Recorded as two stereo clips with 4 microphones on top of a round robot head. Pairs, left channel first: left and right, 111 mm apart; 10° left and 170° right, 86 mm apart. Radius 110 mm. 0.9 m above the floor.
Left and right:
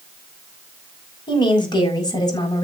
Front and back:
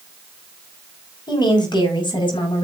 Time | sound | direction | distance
1.3 | a woman speaking | 45° left | 5.5 m